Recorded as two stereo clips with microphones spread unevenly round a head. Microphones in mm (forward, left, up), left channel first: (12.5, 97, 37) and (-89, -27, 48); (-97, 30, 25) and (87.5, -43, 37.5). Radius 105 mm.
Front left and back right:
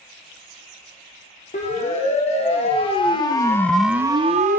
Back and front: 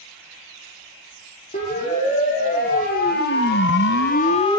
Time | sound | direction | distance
1.5 | a siren | 100° left | 3.5 m